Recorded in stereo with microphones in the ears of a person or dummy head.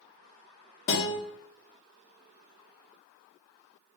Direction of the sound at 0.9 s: 55° left (ahead or behind).